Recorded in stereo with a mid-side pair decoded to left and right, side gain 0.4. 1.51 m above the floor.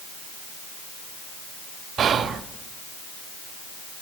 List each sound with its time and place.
2.0 s whispering: 60° right, 0.5 m